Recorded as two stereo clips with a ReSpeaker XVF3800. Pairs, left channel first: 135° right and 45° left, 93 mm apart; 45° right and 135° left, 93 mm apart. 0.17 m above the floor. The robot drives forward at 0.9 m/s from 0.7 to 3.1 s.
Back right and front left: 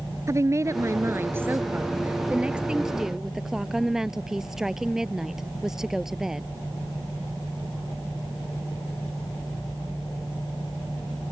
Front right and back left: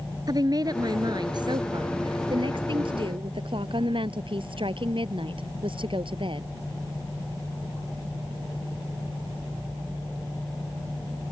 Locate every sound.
0.3 s a woman speaking: 100° left; by 6.5 s 130° left